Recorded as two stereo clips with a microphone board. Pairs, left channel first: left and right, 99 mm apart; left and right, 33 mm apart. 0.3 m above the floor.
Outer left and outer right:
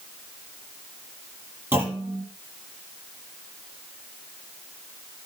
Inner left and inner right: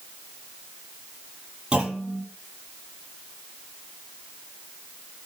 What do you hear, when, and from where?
1.7 s a clunk: 25° right (ahead or behind), 5.5 m